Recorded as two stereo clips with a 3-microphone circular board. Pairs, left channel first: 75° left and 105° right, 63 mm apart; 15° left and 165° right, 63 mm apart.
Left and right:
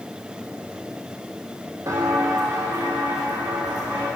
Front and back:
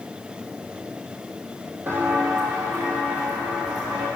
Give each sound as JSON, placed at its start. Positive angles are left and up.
{"t": 1.9, "sound": "footsteps", "azimuth_deg": -120, "distance_m": 1.4}